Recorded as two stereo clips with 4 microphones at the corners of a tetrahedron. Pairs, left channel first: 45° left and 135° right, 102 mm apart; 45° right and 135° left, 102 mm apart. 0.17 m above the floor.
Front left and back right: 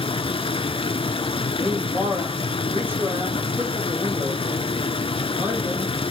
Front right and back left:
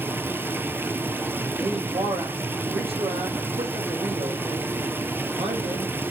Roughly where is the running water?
Ahead left.